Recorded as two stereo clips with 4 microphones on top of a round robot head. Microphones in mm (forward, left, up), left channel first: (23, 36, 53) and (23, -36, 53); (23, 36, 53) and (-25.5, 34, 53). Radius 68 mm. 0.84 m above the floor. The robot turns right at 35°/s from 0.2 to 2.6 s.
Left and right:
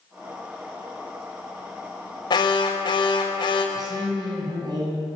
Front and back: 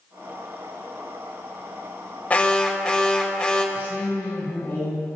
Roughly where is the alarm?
Ahead left.